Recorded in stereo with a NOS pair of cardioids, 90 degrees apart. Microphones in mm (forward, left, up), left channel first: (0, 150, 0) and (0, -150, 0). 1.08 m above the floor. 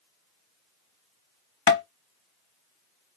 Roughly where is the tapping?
Ahead left.